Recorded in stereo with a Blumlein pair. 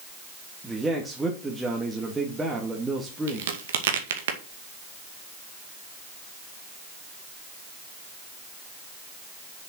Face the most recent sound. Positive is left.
turn(degrees=-60)